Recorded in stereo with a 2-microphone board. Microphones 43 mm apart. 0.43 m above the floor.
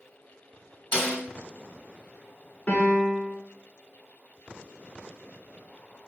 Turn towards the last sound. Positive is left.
turn(degrees=35)  # may be behind; listen again after turning